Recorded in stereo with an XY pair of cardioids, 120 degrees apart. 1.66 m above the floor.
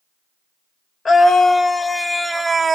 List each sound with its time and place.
1.1 s a scream: 30° left, 1.1 m; by 2.8 s 30° right, 0.7 m